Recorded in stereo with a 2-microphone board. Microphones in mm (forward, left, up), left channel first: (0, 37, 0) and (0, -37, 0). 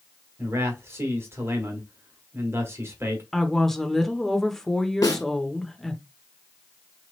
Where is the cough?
I don't hear a cough.